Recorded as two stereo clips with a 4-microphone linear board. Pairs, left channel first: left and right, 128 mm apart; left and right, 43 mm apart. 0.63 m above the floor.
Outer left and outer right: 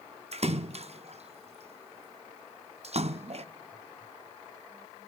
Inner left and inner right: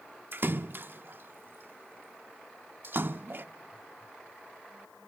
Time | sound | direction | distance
0.3 | a splash | 55° right (ahead or behind) | 0.5 m